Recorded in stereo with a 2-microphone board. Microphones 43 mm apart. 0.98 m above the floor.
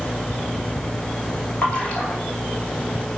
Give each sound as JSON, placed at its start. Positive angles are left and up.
{"t": 1.6, "sound": "a splash", "side_deg": 30, "distance_m": 3.0}